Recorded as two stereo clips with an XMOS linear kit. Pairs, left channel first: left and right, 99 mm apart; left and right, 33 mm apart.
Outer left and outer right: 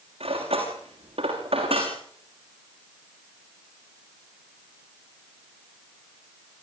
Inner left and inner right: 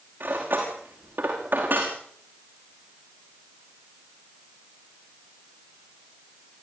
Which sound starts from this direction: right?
Cutlery clinking, at 0.2 s.